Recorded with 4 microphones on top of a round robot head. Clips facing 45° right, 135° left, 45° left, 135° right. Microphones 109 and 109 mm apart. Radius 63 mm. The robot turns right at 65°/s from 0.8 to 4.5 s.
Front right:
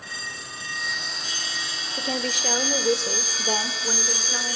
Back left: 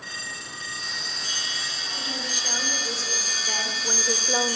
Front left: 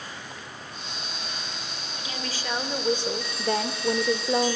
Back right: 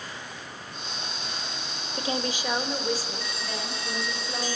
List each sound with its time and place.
2.0 s a woman speaking: 85° right, 2.5 m; by 4.6 s 80° left, 2.5 m